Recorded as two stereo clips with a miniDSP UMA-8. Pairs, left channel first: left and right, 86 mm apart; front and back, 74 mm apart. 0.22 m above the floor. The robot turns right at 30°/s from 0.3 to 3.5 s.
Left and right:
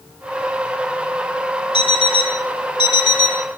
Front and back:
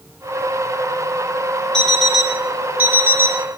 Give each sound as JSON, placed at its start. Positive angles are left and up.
{"t": 1.7, "sound": "an alarm clock", "azimuth_deg": 80, "distance_m": 2.5}